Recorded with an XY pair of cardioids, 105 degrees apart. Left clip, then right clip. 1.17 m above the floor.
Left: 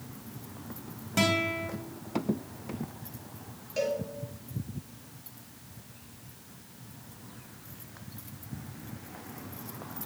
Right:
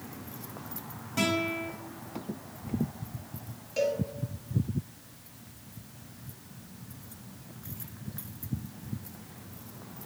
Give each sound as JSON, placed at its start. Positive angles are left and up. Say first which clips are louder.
{"t": 1.2, "sound": "a guitar", "louder": "left 2 dB", "azimuth_deg": 40, "distance_m": 3.0}
{"t": 3.8, "sound": "a cowbell", "louder": "right 2 dB", "azimuth_deg": 5, "distance_m": 3.0}